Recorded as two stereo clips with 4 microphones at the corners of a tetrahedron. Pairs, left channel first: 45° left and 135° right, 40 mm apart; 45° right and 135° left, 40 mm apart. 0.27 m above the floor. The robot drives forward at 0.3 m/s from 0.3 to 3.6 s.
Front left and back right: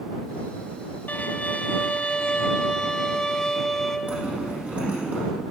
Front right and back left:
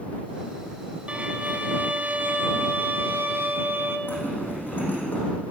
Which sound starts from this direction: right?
A zipper, at 4.1 s.